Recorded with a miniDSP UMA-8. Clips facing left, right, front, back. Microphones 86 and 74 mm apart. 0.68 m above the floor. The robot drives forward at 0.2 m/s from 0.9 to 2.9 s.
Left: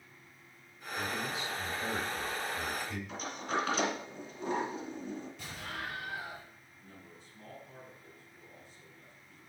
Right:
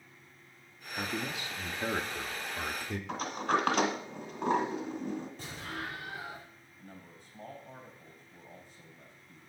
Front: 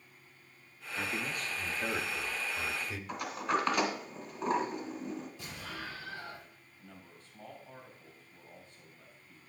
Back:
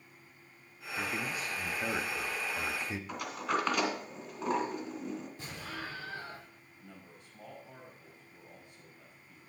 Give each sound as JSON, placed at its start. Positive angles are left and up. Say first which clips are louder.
{"t": 0.9, "sound": "a man speaking", "louder": "even, back 1 dB", "azimuth_deg": -95, "distance_m": 1.0}
{"t": 3.1, "sound": "a sliding door", "louder": "right 7 dB, front 2 dB", "azimuth_deg": -90, "distance_m": 1.7}
{"t": 5.4, "sound": "an explosion", "louder": "right 1 dB, back 1 dB", "azimuth_deg": -140, "distance_m": 6.0}
{"t": 6.8, "sound": "a man speaking", "louder": "right 3 dB, back 1 dB", "azimuth_deg": -105, "distance_m": 4.5}